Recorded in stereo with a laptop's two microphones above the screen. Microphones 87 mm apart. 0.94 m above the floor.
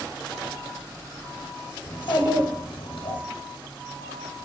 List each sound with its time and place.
1.9 s a child speaking: 70° left (ahead or behind), 1.0 m